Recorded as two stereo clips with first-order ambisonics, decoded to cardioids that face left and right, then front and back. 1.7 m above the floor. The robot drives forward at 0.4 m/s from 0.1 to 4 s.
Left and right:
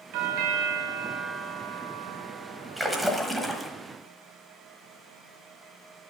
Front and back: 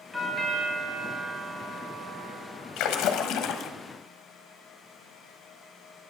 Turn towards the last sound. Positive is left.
turn(degrees=-15)